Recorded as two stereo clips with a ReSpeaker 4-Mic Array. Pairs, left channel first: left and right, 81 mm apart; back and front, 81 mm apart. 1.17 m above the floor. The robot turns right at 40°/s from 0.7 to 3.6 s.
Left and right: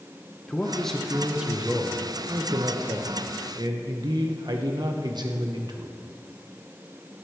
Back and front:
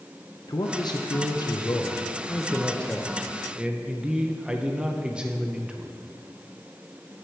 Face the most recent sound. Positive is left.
turn(degrees=-75)